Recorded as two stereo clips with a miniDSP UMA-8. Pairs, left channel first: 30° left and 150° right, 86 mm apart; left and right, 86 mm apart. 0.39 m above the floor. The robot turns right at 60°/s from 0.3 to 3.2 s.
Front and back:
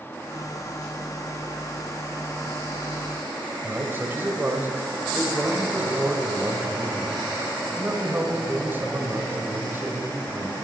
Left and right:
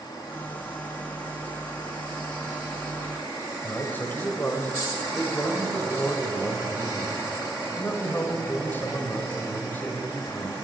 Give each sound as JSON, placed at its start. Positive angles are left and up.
{"t": 3.6, "sound": "a man speaking", "azimuth_deg": 150, "distance_m": 2.0}